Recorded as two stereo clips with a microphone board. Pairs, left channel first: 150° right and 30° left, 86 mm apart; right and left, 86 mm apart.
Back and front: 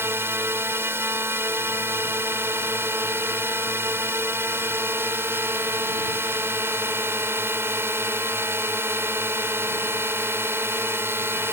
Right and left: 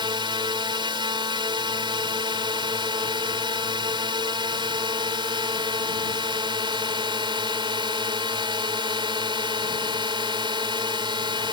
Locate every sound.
0.0 s a drone: 90° left